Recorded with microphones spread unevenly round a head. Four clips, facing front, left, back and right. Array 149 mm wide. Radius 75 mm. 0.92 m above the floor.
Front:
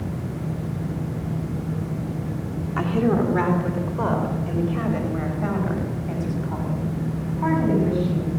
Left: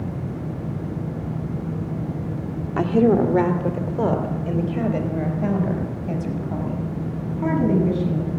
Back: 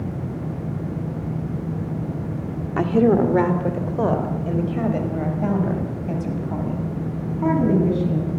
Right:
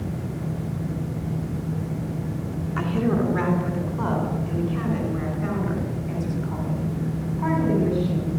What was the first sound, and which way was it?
A woman speaking, 115° left.